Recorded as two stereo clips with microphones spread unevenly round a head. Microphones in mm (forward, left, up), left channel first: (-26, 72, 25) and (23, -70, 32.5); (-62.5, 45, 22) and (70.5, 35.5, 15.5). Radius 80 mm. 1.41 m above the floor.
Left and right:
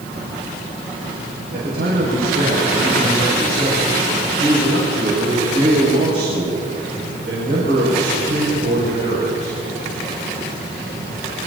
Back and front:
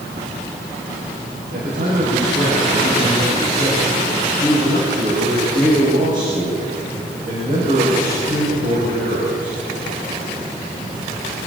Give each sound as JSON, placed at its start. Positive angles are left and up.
{"t": 1.5, "sound": "a man speaking", "azimuth_deg": -45, "distance_m": 7.0}